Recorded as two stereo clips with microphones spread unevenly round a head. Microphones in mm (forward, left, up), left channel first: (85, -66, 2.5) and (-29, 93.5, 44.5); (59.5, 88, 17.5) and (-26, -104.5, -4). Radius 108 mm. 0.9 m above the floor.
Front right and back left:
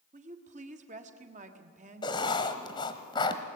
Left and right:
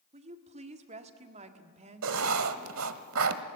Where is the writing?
130° right, 1.1 m.